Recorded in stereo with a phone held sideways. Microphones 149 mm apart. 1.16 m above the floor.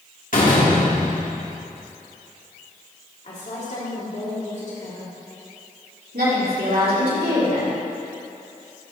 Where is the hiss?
No hiss in this recording.